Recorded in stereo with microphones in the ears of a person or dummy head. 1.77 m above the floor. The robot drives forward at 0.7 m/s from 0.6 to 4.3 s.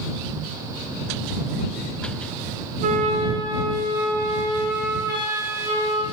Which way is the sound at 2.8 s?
40° right (ahead or behind).